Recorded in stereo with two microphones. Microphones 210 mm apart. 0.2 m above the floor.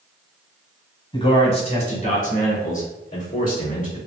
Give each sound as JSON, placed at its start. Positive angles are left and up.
{"t": 1.1, "sound": "a man speaking", "side_deg": 25, "distance_m": 1.2}